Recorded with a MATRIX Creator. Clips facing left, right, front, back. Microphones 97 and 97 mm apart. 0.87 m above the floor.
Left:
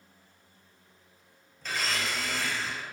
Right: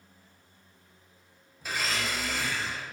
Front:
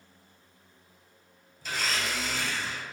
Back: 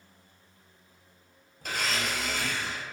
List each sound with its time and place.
1.6 s a blender: 165° right, 0.6 m